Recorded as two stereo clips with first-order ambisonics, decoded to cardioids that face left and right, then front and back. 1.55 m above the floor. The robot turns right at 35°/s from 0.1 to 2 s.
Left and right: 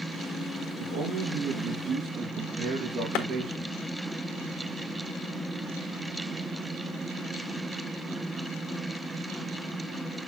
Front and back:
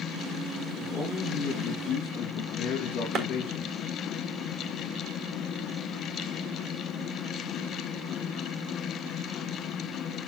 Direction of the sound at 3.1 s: 125° left.